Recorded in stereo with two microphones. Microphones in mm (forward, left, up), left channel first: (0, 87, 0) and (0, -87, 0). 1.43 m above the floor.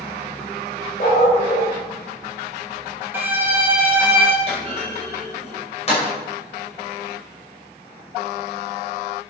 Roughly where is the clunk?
Left.